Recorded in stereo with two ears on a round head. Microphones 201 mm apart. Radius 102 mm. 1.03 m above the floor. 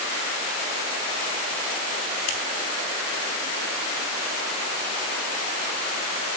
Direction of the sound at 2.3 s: 75° left (ahead or behind).